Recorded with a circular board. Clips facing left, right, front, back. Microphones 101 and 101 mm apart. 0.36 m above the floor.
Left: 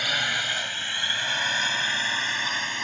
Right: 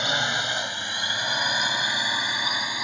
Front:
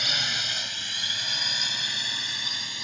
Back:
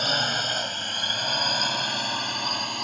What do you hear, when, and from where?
0.0 s a drone: 150° right; by 2.8 s 165° right